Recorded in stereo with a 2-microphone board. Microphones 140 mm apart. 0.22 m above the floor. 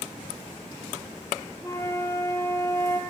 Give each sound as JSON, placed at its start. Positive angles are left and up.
{"t": 1.6, "sound": "a flute", "side_deg": 20, "distance_m": 4.0}